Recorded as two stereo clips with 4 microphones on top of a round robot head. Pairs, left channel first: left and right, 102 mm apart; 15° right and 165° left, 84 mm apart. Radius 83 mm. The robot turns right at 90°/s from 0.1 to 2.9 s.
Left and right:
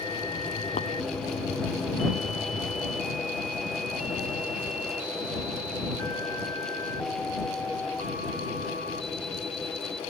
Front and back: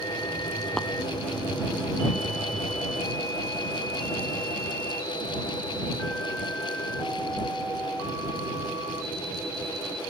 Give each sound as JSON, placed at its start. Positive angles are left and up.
{"t": 0.8, "sound": "tapping", "azimuth_deg": 70}